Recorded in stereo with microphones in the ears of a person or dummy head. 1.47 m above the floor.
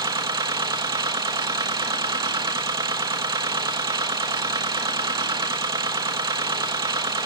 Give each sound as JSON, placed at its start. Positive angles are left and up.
{"t": 0.0, "sound": "a machine running", "side_deg": -20, "distance_m": 1.0}